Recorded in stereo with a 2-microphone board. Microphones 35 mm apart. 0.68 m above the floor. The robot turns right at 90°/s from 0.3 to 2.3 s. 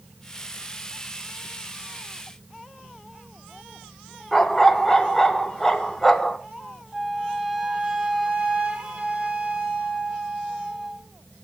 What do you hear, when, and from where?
4.3 s a dog barking: 5° left (ahead or behind), 1.6 m
6.9 s a flute: 25° right (ahead or behind), 2 m